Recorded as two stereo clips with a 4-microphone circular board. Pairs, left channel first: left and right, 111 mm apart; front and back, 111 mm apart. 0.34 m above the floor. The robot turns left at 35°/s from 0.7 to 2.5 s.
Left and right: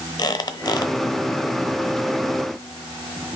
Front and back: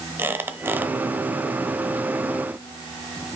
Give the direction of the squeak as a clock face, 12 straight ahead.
8 o'clock.